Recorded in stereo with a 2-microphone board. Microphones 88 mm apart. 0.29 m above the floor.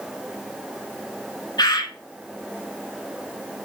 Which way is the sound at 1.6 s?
55° left (ahead or behind).